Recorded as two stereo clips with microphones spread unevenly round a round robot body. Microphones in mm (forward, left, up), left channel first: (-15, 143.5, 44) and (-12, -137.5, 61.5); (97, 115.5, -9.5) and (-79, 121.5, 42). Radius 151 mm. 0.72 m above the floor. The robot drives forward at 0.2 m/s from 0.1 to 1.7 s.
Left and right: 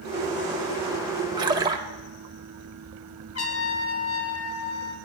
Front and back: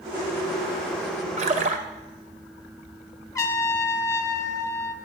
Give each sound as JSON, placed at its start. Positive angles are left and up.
{"t": 1.4, "sound": "a splash", "azimuth_deg": -160, "distance_m": 0.6}
{"t": 3.4, "sound": "a trumpet", "azimuth_deg": 65, "distance_m": 1.3}